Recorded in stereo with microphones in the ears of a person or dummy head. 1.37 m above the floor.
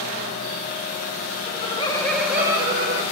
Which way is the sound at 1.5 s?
40° left (ahead or behind).